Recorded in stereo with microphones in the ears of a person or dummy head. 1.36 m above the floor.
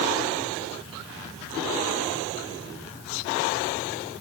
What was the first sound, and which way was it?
Only background noise.